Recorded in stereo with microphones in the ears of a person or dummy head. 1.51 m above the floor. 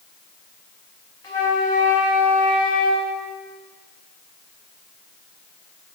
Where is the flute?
15° left (ahead or behind), 0.7 m.